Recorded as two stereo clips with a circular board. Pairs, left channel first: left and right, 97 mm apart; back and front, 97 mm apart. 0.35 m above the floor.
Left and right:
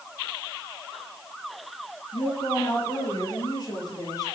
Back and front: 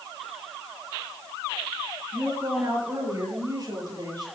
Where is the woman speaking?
60° left, 6 m; by 4.2 s 40° left, 7.5 m.